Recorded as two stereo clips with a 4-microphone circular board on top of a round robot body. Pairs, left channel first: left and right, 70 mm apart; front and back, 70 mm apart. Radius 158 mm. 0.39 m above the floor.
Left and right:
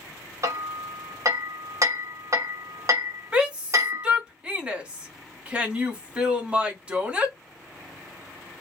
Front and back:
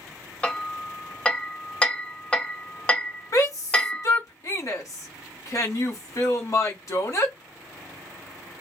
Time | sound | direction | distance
0.4 | hammering | 70° right | 1.6 m
3.3 | a shout | 20° right | 2.5 m